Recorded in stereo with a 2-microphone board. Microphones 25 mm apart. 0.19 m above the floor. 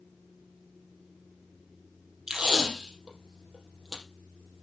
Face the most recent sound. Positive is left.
turn(degrees=-25)  # may be behind; listen again after turning